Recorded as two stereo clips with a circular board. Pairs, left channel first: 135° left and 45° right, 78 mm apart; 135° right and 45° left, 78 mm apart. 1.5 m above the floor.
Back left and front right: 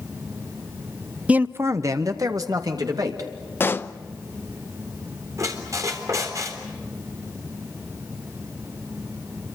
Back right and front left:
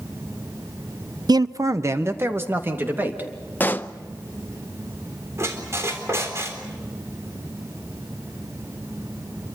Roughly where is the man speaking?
Ahead left.